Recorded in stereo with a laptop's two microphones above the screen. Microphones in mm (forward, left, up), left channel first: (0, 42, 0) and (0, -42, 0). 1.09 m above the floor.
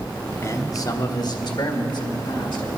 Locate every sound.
0.4 s a man speaking: 35° left (ahead or behind), 1.1 m; by 2.7 s 65° left (ahead or behind), 2.5 m